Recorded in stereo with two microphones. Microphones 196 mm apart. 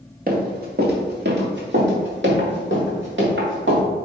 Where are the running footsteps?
50° right (ahead or behind), 2.5 m; by 3.8 s 75° right (ahead or behind), 5 m.